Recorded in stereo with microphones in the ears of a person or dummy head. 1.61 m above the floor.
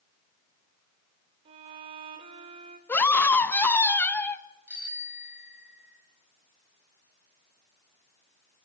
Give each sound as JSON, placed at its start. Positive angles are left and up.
{"t": 1.4, "sound": "a violin", "side_deg": -25, "distance_m": 1.7}
{"t": 2.9, "sound": "a scream", "side_deg": 15, "distance_m": 1.7}
{"t": 4.7, "sound": "a bicycle bell", "side_deg": -10, "distance_m": 7.0}